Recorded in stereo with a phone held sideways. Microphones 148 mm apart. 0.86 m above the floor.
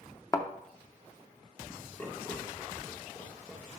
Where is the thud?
20° left (ahead or behind), 0.6 m.